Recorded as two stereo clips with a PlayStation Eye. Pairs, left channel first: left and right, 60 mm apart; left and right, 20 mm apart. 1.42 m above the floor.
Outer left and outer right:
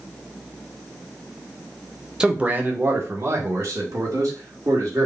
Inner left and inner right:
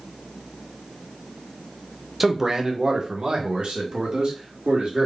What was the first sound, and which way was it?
A man speaking, 15° right (ahead or behind).